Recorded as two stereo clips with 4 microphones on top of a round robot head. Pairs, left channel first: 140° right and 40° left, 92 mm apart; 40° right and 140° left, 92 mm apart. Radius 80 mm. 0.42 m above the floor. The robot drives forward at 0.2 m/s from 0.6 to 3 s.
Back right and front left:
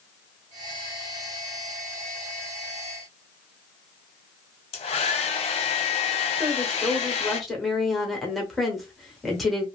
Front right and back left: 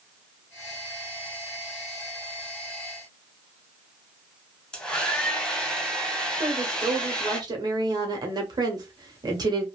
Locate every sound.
4.7 s a hair dryer: 120° right, 0.6 m
6.4 s a woman speaking: 130° left, 1.0 m